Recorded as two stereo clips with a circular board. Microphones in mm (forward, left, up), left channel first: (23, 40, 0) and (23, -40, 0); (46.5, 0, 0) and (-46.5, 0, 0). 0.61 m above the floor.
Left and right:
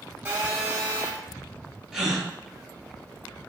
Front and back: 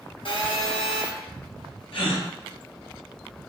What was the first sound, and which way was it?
A phone buzzing, 25° right.